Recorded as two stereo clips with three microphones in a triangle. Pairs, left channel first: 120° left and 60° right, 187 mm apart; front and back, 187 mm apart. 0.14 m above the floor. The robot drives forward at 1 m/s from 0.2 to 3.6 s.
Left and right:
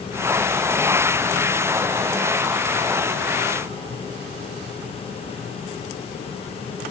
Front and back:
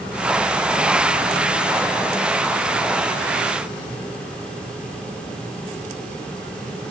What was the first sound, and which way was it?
Only background noise.